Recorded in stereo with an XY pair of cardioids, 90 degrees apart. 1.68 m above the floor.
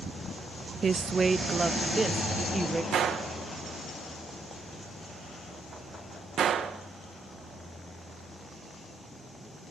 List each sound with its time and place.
0.8 s a woman speaking: 45° right, 0.6 m; by 2.8 s 30° right, 1.6 m
2.9 s a gunshot: 70° right, 1.9 m